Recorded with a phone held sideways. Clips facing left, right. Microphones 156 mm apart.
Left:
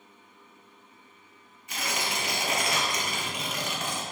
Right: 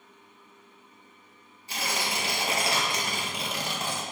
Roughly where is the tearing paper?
Right.